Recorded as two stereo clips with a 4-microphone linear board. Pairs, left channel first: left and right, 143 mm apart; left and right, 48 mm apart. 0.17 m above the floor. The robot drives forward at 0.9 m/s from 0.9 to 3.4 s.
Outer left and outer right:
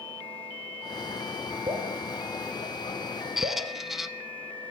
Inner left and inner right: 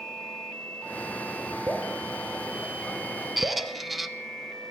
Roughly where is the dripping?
Right.